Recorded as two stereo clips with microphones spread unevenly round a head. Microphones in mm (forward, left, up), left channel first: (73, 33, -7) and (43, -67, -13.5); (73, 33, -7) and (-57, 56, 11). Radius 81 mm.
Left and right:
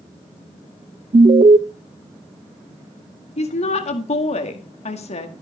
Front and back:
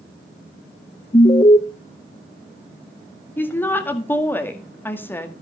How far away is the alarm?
About 0.6 m.